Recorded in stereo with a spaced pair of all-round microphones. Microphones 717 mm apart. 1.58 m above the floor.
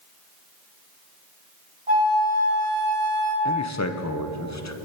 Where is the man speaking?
25° left (ahead or behind), 0.6 m.